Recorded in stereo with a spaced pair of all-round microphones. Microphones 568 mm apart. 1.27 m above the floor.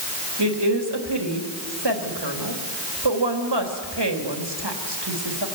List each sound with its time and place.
0.4 s a woman speaking: 45° right (ahead or behind), 3 m